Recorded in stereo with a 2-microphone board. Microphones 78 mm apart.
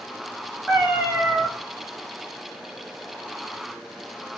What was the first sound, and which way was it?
A cat meowing, 5° right (ahead or behind).